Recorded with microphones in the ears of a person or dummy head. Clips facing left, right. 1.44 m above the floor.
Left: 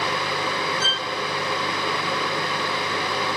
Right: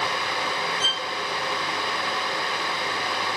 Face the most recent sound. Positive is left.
turn(degrees=-20)  # may be behind; listen again after turning